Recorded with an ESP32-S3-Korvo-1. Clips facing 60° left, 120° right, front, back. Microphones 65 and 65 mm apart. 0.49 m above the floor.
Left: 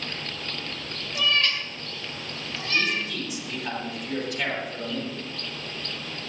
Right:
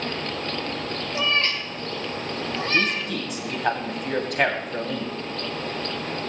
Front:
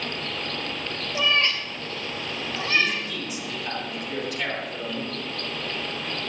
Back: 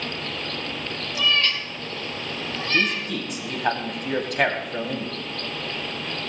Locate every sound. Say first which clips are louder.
1.1 s a cat meowing: even, even; 65° right, 1.7 m; by 3.1 s 80° right, 3 m
2.7 s a man speaking: even, back 2 dB; 150° right, 3 m